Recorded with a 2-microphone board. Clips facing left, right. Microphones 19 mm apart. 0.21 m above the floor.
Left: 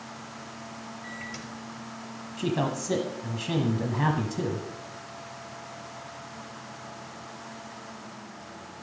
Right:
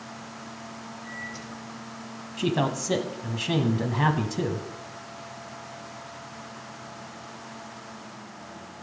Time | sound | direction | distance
1.0 | a microwave | 60° left (ahead or behind) | 4 m
2.4 | a man speaking | 25° right (ahead or behind) | 1.1 m